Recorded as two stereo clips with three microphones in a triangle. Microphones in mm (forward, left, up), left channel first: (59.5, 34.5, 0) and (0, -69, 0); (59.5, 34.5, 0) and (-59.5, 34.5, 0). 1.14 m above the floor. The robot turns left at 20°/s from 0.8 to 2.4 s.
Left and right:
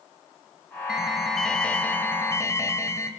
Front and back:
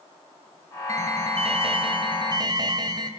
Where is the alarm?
155° left, 3.5 m; by 3.1 s 125° left, 3.5 m.